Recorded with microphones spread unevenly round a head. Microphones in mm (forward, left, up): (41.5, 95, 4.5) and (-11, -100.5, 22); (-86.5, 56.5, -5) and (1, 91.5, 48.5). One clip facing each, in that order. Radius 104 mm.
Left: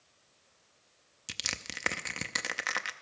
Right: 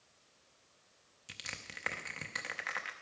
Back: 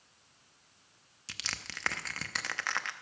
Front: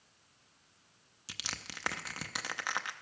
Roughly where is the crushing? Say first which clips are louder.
Left 7 dB, back 1 dB; ahead left.